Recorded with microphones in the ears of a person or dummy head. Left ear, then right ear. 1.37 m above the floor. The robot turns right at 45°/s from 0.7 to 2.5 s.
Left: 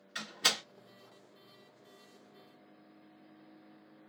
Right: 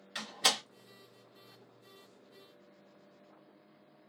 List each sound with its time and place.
0.1 s a door slam: 15° right (ahead or behind), 1.3 m